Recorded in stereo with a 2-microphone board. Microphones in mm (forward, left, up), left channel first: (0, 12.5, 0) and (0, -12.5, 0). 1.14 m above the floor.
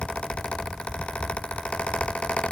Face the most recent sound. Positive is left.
No sound to turn to.